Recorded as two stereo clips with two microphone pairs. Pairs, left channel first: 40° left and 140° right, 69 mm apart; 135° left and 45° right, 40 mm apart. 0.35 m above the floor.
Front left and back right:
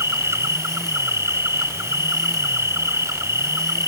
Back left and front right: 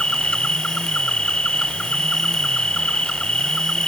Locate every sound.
0.0 s an insect: 175° right